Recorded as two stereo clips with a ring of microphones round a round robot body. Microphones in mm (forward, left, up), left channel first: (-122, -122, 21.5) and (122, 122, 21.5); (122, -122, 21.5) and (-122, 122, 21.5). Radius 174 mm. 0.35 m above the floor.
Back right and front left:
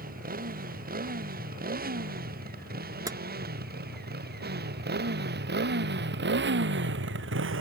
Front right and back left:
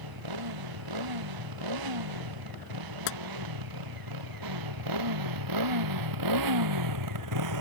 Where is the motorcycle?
110° left; by 7.6 s 100° left.